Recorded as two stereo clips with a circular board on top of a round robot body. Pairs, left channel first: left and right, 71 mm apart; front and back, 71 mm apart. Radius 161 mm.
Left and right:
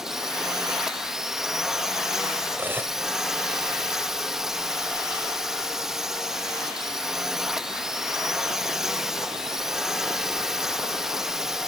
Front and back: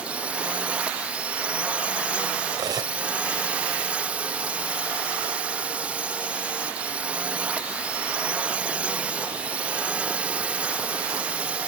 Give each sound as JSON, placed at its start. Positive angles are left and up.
{"t": 0.0, "sound": "a drone", "azimuth_deg": -160}
{"t": 2.5, "sound": "cutlery clinking", "azimuth_deg": -150}